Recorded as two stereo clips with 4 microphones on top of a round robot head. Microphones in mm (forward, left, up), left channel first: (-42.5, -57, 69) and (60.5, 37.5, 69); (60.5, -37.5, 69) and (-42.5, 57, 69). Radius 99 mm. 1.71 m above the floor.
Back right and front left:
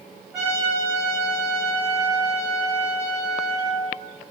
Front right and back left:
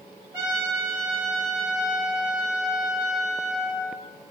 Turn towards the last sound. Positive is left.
turn(degrees=125)